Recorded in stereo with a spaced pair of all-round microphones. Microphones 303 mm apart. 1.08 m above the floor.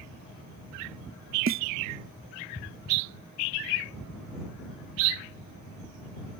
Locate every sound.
1.5 s a snare drum: 45° right (ahead or behind)